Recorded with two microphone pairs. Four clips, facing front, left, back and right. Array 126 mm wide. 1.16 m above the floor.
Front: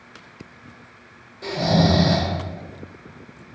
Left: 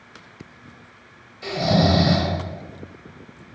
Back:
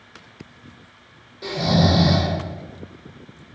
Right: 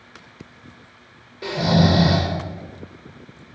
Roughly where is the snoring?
Right.